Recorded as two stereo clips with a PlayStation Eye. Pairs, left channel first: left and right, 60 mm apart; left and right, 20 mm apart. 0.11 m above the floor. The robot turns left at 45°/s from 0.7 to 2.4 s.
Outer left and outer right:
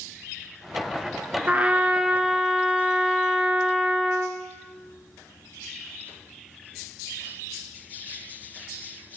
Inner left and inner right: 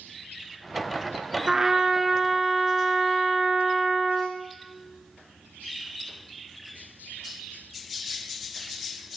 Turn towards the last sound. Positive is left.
turn(degrees=-5)  # may be behind; listen again after turning